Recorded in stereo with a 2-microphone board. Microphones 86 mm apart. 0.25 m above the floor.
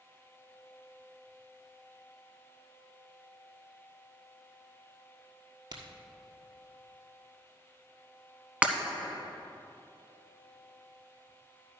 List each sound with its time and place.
5.7 s a crack: 50° right (ahead or behind), 1.5 m
8.6 s breaking glass: 15° right (ahead or behind), 0.9 m